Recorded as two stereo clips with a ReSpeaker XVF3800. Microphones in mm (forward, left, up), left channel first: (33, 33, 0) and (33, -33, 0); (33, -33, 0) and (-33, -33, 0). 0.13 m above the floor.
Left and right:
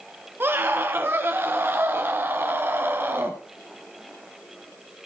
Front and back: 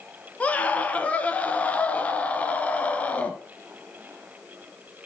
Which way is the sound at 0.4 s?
55° right.